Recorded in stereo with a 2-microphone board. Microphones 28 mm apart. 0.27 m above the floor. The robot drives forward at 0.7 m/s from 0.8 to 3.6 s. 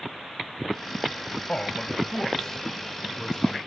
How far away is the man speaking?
About 1.0 m.